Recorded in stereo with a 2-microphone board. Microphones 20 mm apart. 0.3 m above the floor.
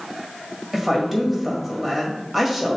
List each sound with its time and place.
0.7 s a woman speaking: 15° right (ahead or behind), 1.2 m